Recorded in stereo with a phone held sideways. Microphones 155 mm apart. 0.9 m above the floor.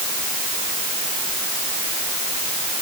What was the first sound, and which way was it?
Only background noise.